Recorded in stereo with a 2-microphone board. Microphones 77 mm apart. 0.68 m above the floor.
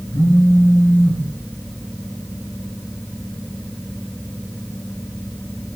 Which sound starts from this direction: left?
A phone buzzing, at 0.1 s.